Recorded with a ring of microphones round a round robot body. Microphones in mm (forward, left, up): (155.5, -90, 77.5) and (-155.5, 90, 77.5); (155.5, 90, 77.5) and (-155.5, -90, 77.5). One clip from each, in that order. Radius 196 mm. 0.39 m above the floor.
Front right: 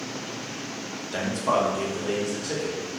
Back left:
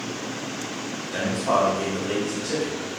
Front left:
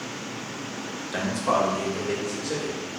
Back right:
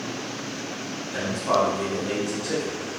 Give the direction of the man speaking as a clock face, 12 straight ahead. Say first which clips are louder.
Back left 2 dB, back right 1 dB; 11 o'clock.